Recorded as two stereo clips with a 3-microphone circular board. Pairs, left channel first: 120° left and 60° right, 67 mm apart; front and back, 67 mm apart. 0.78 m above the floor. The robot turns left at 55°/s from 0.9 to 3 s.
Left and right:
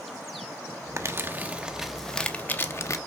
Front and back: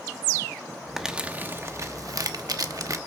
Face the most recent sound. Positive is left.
turn(degrees=155)